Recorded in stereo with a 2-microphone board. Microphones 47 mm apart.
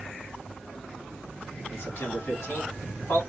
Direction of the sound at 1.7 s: 60° left (ahead or behind).